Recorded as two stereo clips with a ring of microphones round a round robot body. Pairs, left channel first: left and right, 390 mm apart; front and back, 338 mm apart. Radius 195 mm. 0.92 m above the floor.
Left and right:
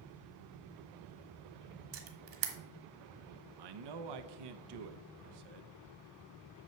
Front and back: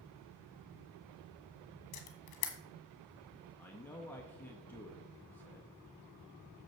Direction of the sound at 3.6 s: 85° right.